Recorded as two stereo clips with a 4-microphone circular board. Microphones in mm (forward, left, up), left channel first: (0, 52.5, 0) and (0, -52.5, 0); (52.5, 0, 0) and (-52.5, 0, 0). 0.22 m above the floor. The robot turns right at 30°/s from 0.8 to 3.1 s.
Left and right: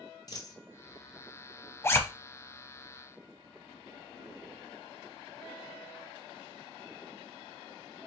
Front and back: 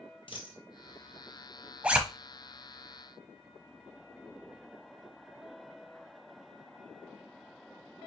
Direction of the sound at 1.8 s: 115° left.